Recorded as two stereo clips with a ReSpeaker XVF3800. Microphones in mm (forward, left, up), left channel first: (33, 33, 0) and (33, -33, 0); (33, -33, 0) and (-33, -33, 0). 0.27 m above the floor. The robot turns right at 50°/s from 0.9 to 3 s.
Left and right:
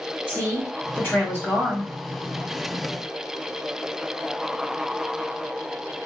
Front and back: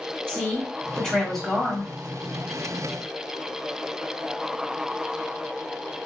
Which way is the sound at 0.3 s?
60° left.